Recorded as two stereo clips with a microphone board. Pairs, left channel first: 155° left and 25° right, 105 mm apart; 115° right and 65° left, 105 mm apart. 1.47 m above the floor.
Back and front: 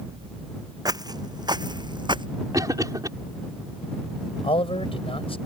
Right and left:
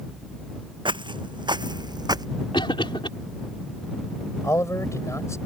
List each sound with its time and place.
0.8 s footsteps: 30° left; by 2.3 s 20° left
2.5 s a cough: 75° right
4.4 s a man speaking: 175° right